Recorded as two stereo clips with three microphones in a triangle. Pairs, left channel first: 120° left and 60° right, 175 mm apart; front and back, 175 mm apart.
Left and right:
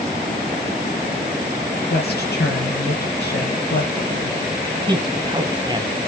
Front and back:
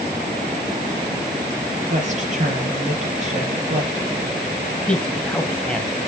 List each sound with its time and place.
1.9 s a woman speaking: 135° left, 4.5 m
4.9 s a man speaking: 75° right, 1.4 m